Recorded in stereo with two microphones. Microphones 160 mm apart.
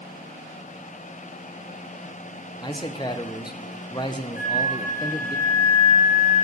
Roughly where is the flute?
Right.